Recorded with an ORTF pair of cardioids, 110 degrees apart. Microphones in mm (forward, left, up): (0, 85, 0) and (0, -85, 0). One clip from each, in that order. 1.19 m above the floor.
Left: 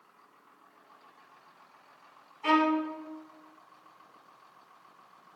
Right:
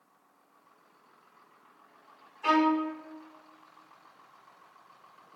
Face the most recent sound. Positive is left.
turn(degrees=-10)